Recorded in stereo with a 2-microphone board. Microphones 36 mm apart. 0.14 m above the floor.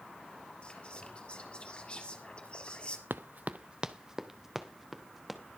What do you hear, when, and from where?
0.6 s whispering: 30° left (ahead or behind), 3 m
3.1 s running footsteps: 75° right (ahead or behind), 0.5 m; by 5.4 s 5° right (ahead or behind), 2.5 m